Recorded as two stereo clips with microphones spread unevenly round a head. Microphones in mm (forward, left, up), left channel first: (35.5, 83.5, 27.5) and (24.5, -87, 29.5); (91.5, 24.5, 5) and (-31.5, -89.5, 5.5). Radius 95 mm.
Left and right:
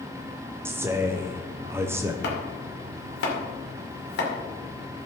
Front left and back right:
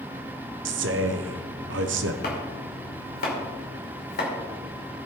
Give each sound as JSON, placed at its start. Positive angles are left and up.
{"t": 0.7, "sound": "a man speaking", "azimuth_deg": -170, "distance_m": 0.8}
{"t": 2.2, "sound": "chopping", "azimuth_deg": 80, "distance_m": 2.5}